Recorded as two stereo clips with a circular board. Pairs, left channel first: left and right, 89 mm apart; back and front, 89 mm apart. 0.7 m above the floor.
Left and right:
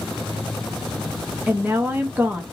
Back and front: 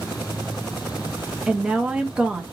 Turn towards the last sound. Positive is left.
turn(degrees=-65)